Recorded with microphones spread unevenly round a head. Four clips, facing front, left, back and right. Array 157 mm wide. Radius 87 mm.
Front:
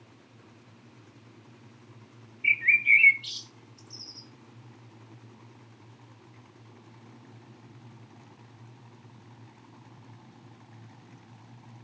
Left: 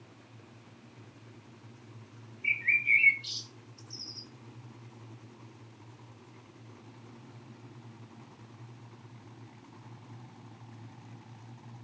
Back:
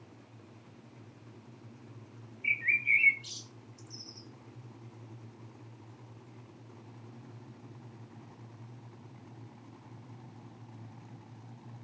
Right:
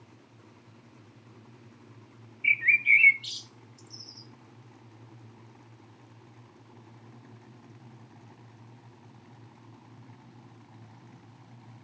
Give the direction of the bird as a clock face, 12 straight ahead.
2 o'clock.